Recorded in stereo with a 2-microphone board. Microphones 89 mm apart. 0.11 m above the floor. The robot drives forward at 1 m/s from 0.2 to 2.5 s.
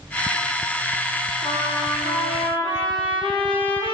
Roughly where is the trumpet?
Left.